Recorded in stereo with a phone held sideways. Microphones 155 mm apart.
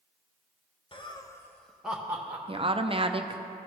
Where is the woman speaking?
35° right (ahead or behind), 0.5 m.